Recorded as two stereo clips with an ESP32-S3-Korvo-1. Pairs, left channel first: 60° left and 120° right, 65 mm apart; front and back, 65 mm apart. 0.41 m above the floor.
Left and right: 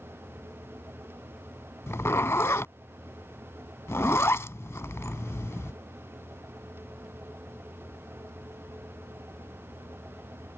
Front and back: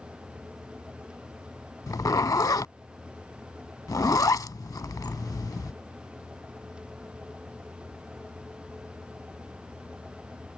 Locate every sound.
1.9 s a zipper: 15° left